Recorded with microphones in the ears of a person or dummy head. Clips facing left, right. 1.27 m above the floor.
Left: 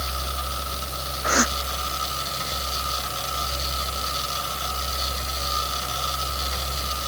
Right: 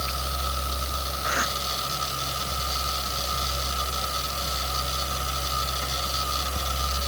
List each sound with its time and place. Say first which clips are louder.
1.2 s a gasp: left 9 dB; 55° left (ahead or behind)